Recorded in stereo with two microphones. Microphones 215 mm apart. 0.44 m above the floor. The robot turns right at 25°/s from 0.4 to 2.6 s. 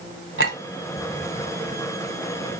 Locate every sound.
0.4 s a clink: 65° right (ahead or behind), 1.4 m